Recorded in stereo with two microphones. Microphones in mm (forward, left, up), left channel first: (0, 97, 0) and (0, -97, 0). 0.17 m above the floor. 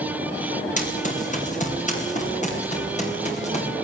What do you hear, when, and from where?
0.8 s running footsteps: 40° left (ahead or behind), 6.5 m; by 3.7 s 35° left (ahead or behind), 7.5 m